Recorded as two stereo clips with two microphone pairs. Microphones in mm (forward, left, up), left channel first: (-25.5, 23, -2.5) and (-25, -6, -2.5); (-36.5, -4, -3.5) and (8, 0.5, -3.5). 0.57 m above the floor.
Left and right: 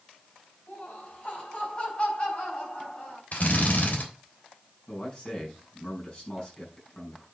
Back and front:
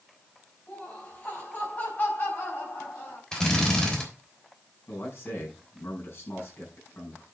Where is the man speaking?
150° left, 6 m.